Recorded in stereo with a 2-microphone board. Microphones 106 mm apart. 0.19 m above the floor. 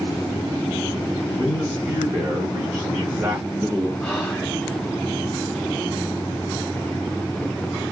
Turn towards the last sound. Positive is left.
turn(degrees=10)  # may be behind; listen again after turning